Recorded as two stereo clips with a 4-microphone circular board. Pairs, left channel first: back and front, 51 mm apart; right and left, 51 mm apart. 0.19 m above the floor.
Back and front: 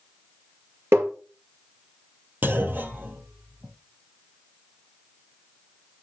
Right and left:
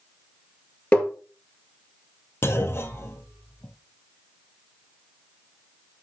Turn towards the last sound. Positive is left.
turn(degrees=-50)